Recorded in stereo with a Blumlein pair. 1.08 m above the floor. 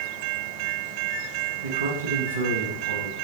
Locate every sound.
1.6 s a man speaking: 65° right, 1.0 m